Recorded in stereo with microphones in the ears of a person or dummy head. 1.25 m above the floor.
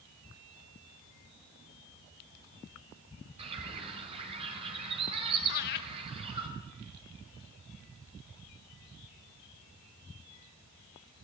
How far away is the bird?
About 5.5 m.